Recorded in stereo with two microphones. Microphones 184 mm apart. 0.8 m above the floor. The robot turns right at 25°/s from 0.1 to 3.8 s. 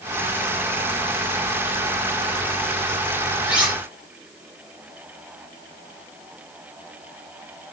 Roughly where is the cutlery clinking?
Centre.